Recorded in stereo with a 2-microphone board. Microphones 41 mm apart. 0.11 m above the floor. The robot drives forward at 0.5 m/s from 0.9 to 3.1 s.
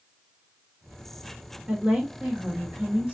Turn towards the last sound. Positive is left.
turn(degrees=-35)  # may be behind; listen again after turning